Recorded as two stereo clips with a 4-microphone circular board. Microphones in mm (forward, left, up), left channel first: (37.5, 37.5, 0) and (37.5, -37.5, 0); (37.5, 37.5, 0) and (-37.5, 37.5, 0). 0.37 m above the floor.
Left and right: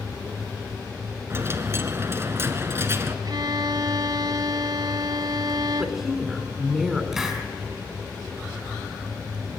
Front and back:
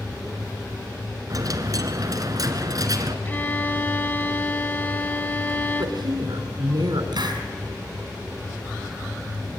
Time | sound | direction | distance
1.3 | a dropped coin | 145° right | 1.6 m
3.2 | a violin | 65° right | 0.9 m
5.8 | a woman speaking | 175° right | 3 m
7.1 | a hiss | 175° right | 3.5 m